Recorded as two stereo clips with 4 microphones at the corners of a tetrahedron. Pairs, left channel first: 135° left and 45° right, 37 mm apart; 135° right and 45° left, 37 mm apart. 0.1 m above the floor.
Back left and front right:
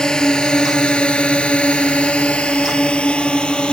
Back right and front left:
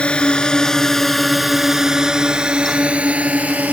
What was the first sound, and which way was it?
A drone, 170° right.